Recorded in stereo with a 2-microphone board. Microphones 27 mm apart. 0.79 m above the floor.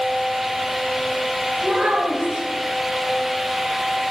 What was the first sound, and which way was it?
A child speaking, 40° right (ahead or behind).